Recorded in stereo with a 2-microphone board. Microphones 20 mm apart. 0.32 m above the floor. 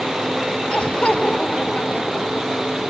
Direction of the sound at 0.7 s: 70° left (ahead or behind).